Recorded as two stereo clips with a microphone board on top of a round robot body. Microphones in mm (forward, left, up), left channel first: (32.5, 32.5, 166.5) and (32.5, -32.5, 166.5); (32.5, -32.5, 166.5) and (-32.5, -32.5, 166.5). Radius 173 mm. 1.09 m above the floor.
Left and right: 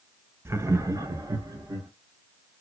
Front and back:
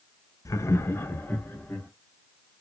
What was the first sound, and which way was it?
Laughter, 40° right.